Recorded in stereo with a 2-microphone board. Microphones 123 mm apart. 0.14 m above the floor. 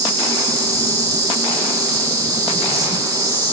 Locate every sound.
0.0 s an insect: 30° right (ahead or behind), 3 m